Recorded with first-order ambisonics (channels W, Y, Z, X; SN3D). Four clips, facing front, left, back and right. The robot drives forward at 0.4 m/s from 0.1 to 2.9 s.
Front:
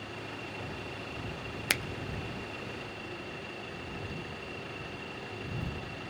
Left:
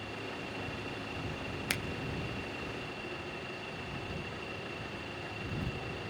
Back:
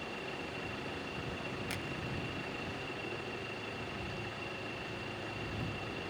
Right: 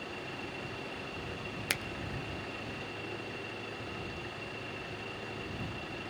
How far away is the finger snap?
About 0.7 m.